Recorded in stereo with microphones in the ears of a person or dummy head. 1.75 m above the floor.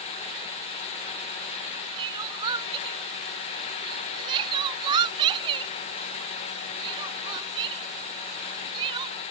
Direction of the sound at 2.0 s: 30° right (ahead or behind).